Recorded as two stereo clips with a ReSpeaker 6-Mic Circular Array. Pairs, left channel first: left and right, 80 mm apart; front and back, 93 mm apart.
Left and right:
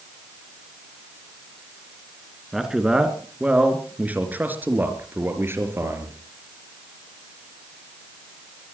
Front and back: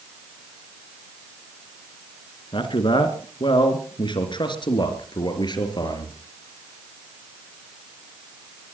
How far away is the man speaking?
About 3 m.